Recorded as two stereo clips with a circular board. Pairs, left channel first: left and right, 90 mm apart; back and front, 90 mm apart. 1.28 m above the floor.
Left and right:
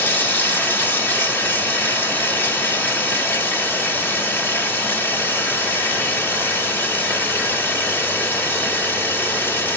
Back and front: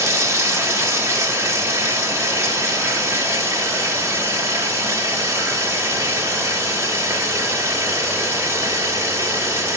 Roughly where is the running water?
Ahead left.